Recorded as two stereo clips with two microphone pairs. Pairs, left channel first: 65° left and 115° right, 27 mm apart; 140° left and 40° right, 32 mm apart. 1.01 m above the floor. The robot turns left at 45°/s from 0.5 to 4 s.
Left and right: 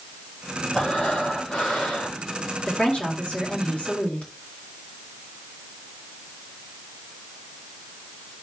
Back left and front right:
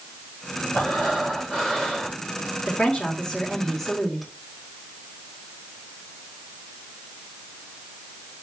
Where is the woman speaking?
110° left, 1.8 m; by 4.3 s 50° left, 1.8 m.